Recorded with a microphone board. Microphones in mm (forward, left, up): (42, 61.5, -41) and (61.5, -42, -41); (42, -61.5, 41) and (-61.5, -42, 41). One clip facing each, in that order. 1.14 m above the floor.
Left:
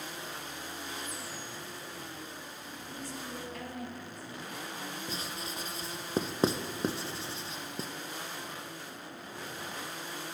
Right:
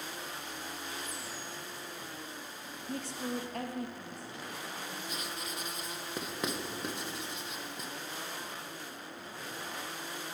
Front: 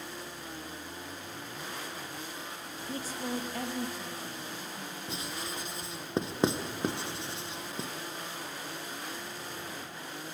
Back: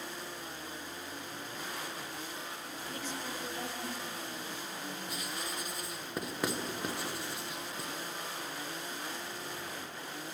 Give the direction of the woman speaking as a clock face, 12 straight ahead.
3 o'clock.